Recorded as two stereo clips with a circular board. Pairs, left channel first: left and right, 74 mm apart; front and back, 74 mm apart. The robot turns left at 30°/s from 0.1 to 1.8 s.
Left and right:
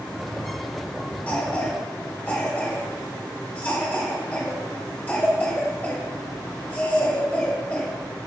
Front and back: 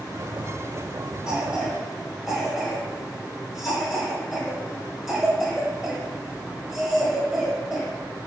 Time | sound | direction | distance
1.3 | a cough | 120° left | 1.0 m